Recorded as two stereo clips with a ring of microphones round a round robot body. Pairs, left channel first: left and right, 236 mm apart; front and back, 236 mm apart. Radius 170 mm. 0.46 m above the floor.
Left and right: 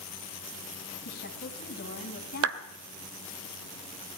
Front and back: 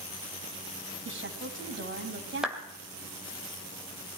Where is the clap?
95° right, 1.5 m.